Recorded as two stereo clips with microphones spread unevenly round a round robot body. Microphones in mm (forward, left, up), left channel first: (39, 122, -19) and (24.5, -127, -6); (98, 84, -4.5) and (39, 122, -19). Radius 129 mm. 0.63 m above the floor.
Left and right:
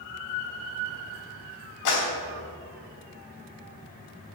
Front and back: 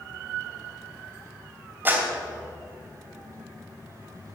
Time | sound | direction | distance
1.9 | a clap | 85° left | 3 m